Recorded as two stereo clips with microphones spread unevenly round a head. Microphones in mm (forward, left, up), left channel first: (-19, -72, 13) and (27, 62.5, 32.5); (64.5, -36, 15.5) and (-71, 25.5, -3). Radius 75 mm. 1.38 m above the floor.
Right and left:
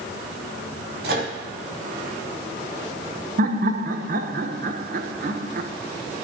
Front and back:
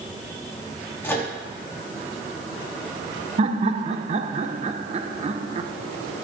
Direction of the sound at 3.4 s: 105° left.